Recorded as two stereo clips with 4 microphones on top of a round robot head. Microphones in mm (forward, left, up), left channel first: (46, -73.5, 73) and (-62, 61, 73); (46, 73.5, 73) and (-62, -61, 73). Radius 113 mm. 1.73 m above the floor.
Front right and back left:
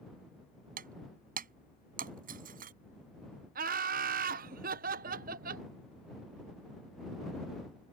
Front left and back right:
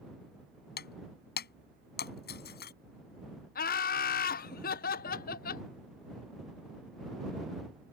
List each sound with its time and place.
0.8 s breaking glass: 85° left
3.5 s laughter: 85° left